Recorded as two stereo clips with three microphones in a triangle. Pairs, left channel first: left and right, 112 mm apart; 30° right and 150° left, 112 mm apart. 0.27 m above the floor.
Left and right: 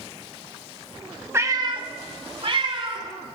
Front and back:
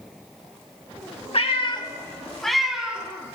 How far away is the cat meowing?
About 0.6 m.